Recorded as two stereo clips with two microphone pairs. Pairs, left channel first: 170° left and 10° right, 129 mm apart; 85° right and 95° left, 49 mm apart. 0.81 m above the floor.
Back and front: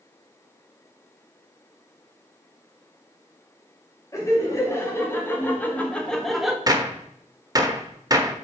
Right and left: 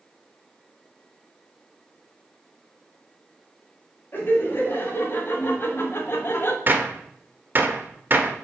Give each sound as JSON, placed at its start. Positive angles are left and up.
{"t": 4.1, "sound": "laughter", "azimuth_deg": -125, "distance_m": 2.0}
{"t": 6.7, "sound": "a gunshot", "azimuth_deg": 45, "distance_m": 0.9}